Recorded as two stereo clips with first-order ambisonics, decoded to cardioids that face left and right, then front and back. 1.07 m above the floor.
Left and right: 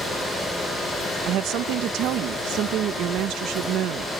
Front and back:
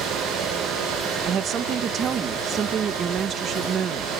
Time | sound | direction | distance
1.2 | a woman speaking | 125° right | ?